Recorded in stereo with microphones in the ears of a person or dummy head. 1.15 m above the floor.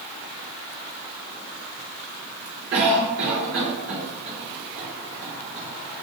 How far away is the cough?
About 1.2 m.